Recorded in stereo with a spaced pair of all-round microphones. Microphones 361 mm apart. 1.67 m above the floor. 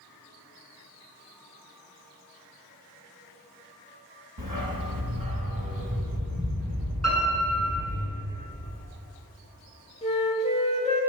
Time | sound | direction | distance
4.4 | a dog barking | 70° right (ahead or behind) | 4 m
7.0 | a piano | 40° right (ahead or behind) | 7 m
10.0 | a flute | 15° left (ahead or behind) | 2.5 m